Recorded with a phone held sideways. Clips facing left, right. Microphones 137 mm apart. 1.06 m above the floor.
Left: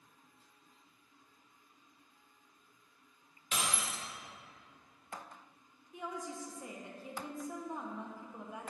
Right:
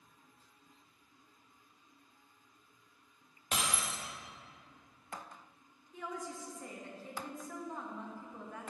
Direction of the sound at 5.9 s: 15° left (ahead or behind).